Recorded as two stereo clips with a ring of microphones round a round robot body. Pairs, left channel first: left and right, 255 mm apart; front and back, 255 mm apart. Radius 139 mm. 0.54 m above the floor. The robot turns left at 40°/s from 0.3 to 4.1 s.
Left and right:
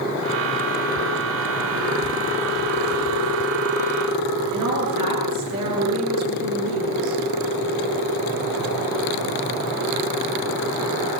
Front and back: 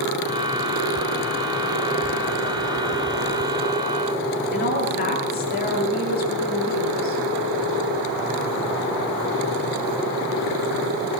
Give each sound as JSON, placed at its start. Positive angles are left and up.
{"t": 4.5, "sound": "a woman speaking", "azimuth_deg": -55, "distance_m": 8.5}